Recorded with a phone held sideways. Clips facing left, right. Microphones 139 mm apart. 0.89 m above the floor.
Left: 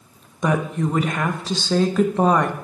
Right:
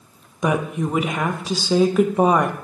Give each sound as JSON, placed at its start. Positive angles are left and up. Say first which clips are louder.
{"t": 0.4, "sound": "a woman speaking", "louder": "even", "side_deg": -10, "distance_m": 0.5}